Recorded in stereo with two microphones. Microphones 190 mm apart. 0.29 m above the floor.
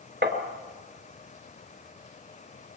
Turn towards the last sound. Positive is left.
turn(degrees=-65)  # may be behind; listen again after turning